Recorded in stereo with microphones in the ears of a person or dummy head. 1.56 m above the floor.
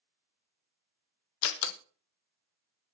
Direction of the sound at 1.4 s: 75° left (ahead or behind).